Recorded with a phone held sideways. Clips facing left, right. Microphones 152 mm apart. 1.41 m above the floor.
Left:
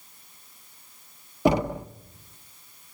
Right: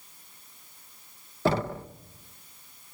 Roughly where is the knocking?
Centre.